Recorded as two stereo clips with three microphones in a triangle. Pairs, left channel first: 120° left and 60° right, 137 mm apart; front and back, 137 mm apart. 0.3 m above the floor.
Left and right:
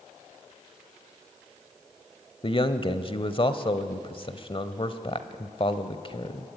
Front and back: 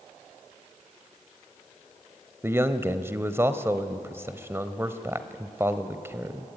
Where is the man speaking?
120° left, 1.1 m.